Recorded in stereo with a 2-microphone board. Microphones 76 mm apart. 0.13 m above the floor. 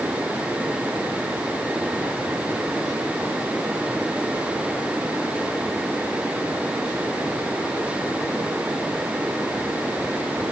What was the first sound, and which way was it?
Only background noise.